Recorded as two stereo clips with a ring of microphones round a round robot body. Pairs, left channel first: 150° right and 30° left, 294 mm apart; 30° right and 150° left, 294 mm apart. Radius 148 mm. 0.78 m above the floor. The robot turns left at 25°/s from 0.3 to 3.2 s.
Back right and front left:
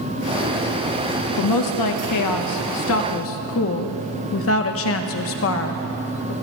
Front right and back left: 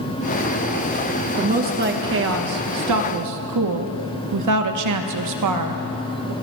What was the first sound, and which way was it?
A woman speaking, 145° right.